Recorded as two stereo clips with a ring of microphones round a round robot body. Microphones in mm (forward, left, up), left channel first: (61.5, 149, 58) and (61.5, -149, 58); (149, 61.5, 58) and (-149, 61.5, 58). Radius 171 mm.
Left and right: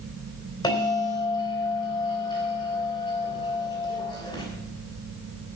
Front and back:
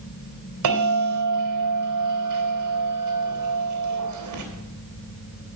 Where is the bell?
165° left, 3.5 m.